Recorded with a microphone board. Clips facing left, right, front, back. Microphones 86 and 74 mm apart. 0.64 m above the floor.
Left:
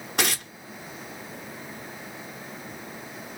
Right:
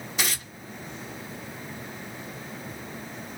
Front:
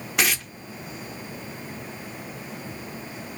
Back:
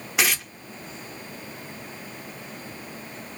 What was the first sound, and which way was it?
Tearing paper, 90° left.